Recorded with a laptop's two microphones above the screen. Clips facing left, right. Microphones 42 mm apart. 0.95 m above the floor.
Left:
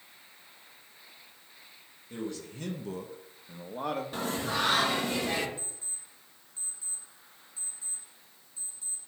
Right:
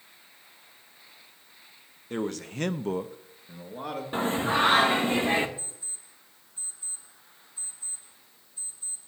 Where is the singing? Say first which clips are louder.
Right 6 dB; 30° right (ahead or behind), 0.6 m.